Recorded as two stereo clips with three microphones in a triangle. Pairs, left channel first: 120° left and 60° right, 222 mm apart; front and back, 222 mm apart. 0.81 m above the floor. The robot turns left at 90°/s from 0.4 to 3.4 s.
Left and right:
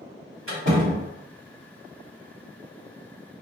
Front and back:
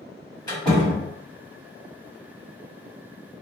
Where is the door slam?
70° right, 1.5 m; by 1.1 s 130° right, 1.5 m.